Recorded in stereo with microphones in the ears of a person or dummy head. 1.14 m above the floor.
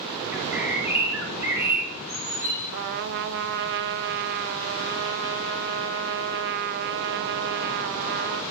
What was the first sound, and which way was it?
A bird, 10° right (ahead or behind).